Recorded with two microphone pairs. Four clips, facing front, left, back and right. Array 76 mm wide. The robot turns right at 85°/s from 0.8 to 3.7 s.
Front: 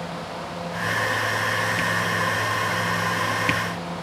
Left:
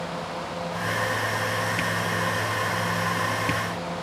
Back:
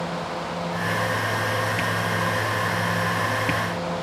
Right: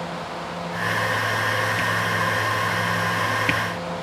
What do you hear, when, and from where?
Only background noise.